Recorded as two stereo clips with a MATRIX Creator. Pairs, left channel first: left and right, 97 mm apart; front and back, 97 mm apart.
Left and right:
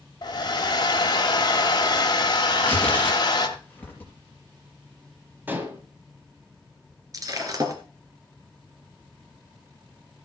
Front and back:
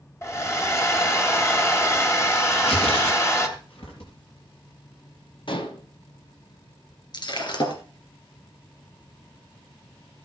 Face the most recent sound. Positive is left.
turn(degrees=-40)